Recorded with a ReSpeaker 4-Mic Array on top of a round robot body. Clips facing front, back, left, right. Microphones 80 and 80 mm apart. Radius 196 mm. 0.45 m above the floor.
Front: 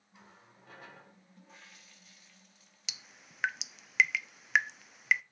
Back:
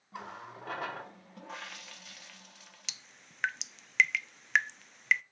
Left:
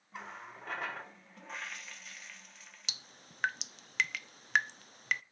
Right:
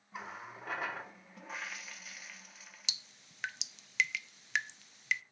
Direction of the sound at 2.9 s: 85° left.